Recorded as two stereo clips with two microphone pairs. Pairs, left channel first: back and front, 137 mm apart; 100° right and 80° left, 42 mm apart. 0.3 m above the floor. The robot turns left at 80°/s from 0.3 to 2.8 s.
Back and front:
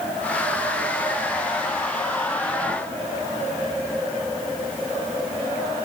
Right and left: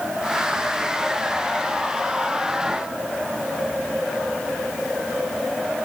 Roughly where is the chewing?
I don't hear chewing.